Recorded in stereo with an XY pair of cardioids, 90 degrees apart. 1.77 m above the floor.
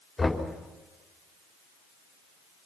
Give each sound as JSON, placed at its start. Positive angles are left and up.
{"t": 0.2, "sound": "knocking", "azimuth_deg": 25, "distance_m": 4.5}